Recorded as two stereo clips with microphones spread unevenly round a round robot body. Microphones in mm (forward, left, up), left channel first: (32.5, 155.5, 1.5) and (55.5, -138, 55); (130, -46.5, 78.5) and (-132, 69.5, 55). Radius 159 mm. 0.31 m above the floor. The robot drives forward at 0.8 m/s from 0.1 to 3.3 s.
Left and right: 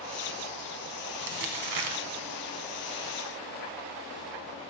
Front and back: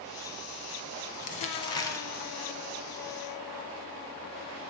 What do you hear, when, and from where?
1.2 s crumpling: 85° right, 1.7 m; by 2.0 s 110° right, 1.8 m